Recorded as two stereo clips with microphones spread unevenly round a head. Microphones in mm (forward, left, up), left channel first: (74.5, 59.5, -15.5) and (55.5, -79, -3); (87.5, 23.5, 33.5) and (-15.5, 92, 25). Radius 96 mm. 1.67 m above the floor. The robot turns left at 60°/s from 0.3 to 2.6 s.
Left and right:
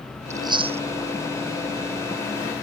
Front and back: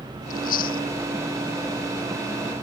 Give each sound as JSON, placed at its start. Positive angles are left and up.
{"t": 0.3, "sound": "chewing", "azimuth_deg": -30}